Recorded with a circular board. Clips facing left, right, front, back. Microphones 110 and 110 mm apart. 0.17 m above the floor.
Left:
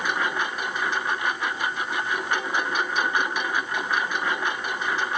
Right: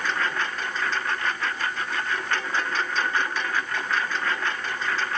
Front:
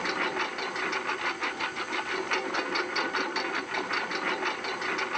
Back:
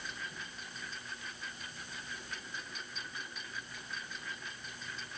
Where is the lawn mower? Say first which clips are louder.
Left 1 dB, front 15 dB; 15° left.